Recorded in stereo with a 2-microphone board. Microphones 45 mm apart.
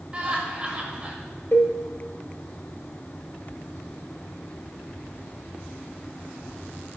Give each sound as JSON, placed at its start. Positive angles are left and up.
{"t": 0.1, "sound": "laughter", "side_deg": -25, "distance_m": 1.5}
{"t": 1.5, "sound": "a cowbell", "side_deg": 55, "distance_m": 0.9}